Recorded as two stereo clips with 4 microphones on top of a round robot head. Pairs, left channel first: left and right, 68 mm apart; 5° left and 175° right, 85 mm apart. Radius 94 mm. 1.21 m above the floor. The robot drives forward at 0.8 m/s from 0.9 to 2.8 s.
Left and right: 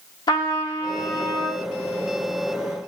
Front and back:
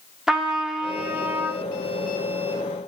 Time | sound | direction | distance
0.3 | a trumpet | 100° left | 1.2 m